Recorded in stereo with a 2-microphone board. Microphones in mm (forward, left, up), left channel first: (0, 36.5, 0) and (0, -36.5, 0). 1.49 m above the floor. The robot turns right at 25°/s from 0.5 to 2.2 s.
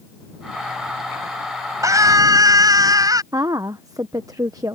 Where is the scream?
50° right (ahead or behind); by 3.2 s 60° right (ahead or behind).